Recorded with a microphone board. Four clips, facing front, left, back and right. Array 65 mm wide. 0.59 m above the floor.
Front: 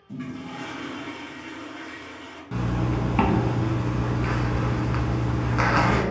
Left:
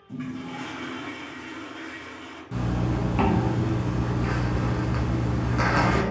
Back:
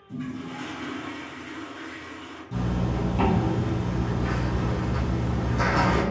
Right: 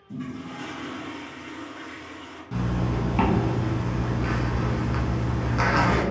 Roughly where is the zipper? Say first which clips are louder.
Even, front 2 dB; ahead.